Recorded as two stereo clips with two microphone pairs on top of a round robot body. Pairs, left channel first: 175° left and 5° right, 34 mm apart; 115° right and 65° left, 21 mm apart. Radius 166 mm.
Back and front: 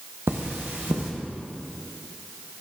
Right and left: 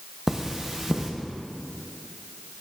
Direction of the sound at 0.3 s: 5° right.